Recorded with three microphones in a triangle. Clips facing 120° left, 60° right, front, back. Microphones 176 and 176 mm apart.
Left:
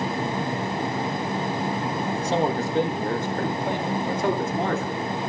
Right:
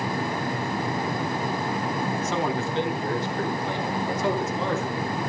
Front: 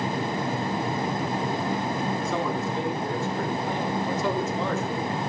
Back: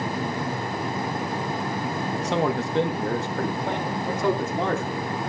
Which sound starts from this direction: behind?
A man speaking, at 2.1 s.